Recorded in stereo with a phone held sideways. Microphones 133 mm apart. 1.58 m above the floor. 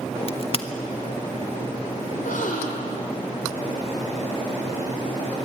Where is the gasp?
85° left, 4.5 m.